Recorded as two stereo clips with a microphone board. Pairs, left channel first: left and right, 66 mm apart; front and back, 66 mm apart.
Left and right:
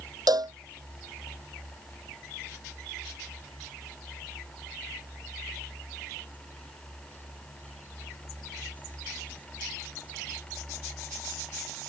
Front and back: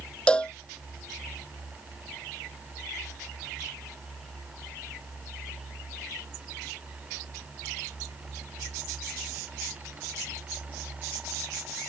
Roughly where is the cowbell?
Right.